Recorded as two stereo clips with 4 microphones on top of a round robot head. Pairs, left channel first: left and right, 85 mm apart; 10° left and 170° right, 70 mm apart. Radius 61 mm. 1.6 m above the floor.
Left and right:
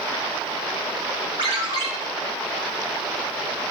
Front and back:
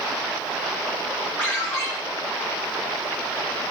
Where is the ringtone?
60° right, 1.3 m.